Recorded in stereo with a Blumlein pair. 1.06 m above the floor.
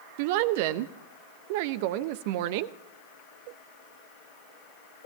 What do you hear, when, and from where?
0.2 s a woman speaking: 50° right, 0.8 m